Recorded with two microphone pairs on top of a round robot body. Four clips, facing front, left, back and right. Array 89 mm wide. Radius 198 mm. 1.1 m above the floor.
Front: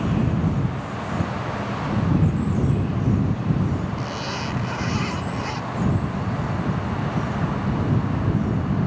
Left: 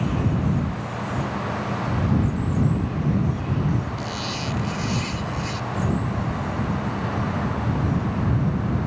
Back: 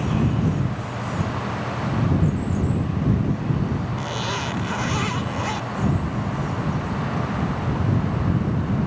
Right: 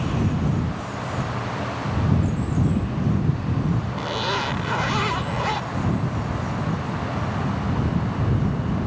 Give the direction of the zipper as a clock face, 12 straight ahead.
3 o'clock.